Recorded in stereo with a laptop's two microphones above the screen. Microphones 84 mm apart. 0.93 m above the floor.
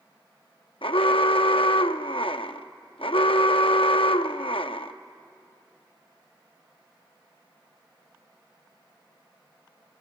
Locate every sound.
0.8 s an alarm: 80° left, 0.7 m